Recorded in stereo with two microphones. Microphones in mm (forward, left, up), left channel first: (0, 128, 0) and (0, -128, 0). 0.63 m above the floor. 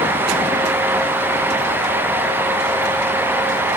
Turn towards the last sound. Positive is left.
No sound to turn to.